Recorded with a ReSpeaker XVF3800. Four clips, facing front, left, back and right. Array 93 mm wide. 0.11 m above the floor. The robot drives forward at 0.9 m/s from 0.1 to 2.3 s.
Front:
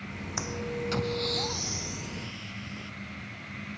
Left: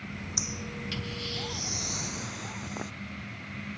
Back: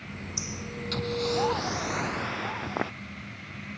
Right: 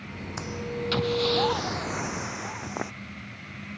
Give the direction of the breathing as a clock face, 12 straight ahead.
1 o'clock.